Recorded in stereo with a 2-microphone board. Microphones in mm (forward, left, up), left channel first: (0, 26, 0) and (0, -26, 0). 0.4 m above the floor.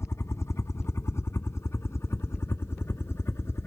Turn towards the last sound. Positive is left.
turn(degrees=55)  # may be behind; listen again after turning